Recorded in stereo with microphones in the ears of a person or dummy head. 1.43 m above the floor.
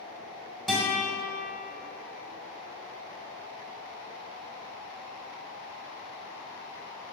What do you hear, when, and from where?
0.7 s a guitar: centre (ahead or behind), 2.0 m